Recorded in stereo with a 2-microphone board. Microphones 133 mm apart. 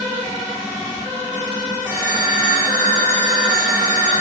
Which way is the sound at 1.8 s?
15° left (ahead or behind).